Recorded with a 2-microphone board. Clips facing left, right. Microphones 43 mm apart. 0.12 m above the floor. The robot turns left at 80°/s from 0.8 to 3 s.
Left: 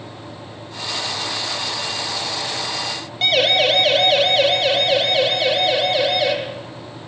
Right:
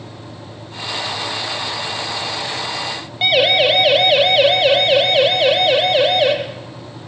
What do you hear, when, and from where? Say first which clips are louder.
3.2 s a siren: right 3 dB; 20° right (ahead or behind), 4.5 m; by 6.3 s 40° right (ahead or behind), 6 m